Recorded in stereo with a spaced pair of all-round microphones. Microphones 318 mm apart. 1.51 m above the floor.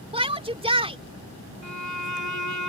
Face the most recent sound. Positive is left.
turn(degrees=65)  # may be behind; listen again after turning